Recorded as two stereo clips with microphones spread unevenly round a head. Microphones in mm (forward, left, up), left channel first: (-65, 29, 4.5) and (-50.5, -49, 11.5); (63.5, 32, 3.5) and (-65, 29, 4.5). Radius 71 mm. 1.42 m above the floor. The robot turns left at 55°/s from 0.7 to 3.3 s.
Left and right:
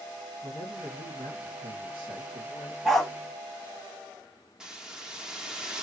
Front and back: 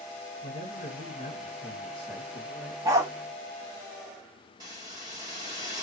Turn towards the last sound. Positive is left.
turn(degrees=-145)